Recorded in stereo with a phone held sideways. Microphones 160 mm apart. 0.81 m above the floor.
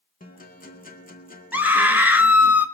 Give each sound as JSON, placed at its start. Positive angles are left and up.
{"t": 0.2, "sound": "a guitar", "side_deg": 60, "distance_m": 2.0}
{"t": 1.5, "sound": "a scream", "side_deg": -10, "distance_m": 1.4}